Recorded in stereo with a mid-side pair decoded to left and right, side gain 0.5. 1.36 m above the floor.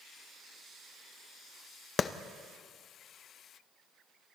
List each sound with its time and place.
2.0 s a clap: 45° left, 0.9 m